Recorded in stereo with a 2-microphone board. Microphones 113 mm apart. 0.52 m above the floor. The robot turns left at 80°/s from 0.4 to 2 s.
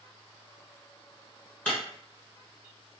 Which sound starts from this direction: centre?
Breaking glass, at 1.6 s.